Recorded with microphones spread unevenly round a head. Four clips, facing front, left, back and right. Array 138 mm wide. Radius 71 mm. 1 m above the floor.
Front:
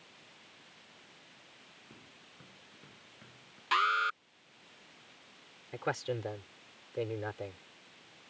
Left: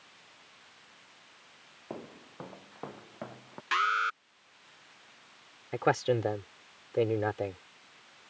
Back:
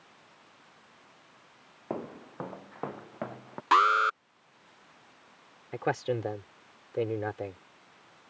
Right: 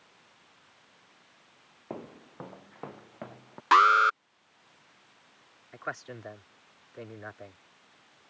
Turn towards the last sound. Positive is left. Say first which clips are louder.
# left 12 dB, back 5 dB
turn(degrees=115)